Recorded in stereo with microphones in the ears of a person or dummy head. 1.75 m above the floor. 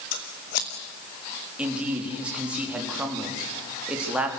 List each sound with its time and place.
0.1 s scissors: 50° left (ahead or behind), 1.5 m
1.6 s a man speaking: 5° right (ahead or behind), 3.5 m